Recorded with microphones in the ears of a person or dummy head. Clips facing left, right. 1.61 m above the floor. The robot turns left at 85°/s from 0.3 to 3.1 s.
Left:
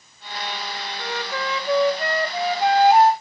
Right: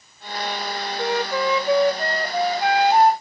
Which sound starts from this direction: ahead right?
A flute, at 1.0 s.